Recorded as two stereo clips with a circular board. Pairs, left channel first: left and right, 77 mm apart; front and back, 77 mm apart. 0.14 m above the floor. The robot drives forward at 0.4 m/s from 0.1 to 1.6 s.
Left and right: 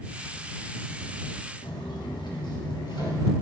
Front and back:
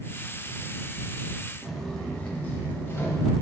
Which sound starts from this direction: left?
Footsteps, at 1.6 s.